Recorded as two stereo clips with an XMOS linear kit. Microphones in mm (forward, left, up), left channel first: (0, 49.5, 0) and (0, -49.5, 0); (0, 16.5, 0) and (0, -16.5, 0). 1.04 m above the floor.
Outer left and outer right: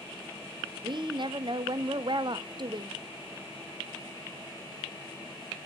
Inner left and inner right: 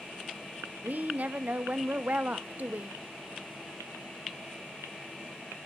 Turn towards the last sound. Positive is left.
turn(degrees=-50)  # may be behind; listen again after turning